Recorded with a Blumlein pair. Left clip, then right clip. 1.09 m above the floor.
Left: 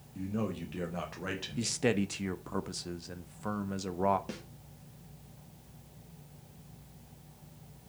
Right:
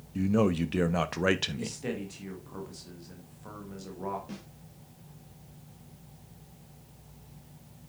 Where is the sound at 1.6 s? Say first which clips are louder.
Left 5 dB; 30° left, 1.3 m.